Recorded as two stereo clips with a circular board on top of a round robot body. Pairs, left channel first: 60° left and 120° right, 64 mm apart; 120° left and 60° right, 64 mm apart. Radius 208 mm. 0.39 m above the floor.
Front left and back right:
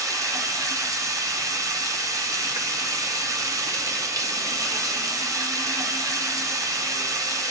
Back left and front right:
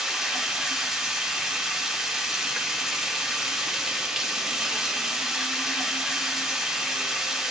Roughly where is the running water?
Behind right.